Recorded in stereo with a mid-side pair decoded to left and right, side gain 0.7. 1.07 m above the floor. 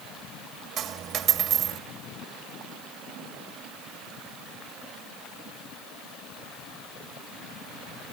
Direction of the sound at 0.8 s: 40° right.